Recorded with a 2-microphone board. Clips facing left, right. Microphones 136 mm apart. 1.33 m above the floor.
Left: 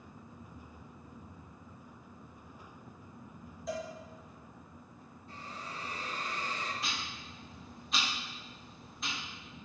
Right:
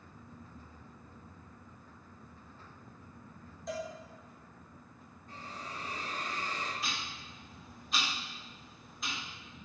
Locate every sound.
3.7 s a cowbell: centre (ahead or behind), 0.7 m
5.3 s a hiss: 45° right (ahead or behind), 1.4 m
6.8 s ticking: centre (ahead or behind), 1.0 m